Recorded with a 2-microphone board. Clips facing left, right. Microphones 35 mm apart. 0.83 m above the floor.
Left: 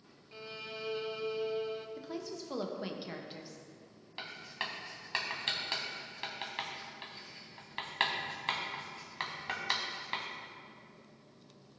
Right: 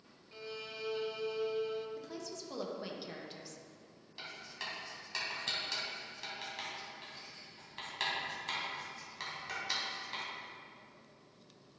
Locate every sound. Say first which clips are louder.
0.3 s a violin: left 1 dB; 10° left (ahead or behind), 0.6 m
2.0 s a woman speaking: left 3 dB; 15° left (ahead or behind), 0.8 m
4.2 s writing: left 4 dB; 40° left (ahead or behind), 1.5 m